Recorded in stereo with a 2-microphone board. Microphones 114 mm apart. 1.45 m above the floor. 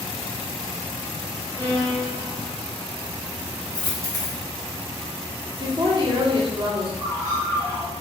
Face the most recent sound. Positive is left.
turn(degrees=-25)  # may be behind; listen again after turning